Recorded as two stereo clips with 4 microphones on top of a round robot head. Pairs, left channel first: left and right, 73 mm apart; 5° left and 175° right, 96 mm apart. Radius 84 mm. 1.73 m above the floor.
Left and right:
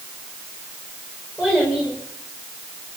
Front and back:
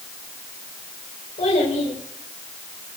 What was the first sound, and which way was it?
A child speaking, 10° left.